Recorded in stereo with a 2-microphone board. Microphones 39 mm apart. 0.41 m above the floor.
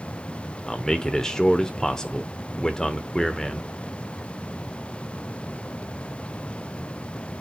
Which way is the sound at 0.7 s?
15° left (ahead or behind).